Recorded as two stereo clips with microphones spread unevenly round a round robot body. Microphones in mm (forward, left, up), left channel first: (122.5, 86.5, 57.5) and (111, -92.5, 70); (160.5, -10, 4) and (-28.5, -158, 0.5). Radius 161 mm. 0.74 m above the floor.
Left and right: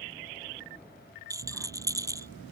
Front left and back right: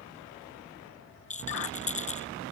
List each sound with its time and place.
1.3 s a rattle: 20° right